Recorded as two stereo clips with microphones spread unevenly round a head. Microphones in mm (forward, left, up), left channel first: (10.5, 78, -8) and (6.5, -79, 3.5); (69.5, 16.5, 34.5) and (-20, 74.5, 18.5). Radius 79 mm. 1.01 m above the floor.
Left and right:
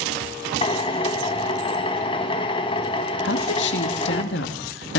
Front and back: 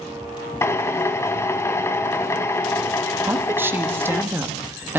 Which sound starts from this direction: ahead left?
A drill, at 0.6 s.